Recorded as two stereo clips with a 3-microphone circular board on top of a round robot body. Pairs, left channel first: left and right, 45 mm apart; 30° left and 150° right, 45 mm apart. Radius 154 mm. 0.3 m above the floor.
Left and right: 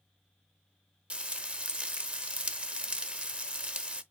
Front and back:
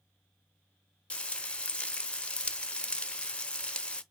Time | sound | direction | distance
1.1 | frying | 35° right | 0.8 m